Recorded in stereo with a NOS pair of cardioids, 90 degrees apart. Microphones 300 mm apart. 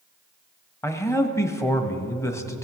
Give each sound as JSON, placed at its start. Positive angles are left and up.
{"t": 0.8, "sound": "a man speaking", "azimuth_deg": 10, "distance_m": 1.2}